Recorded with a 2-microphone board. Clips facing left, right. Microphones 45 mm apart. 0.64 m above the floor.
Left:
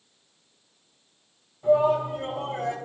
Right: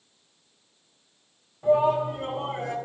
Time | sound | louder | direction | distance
1.6 | a shout | even | 30° right (ahead or behind) | 4.5 m